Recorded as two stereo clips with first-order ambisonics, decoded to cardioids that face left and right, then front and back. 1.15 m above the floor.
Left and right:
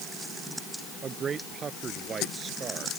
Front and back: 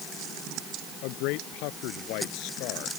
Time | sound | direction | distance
1.0 | a man speaking | 25° right | ?